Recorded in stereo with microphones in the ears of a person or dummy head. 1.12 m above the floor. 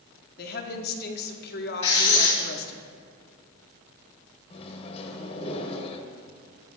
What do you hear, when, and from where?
0.4 s a woman speaking: 50° left (ahead or behind), 0.8 m
1.8 s writing: 30° left (ahead or behind), 1.9 m
4.5 s a microwave: 30° left (ahead or behind), 0.8 m